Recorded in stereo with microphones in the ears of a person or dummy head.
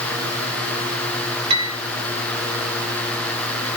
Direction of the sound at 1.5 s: 30° right (ahead or behind).